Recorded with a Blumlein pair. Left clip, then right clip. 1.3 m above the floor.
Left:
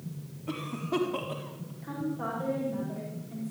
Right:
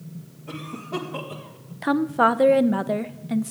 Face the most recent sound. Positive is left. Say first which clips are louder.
# right 15 dB
turn(degrees=-50)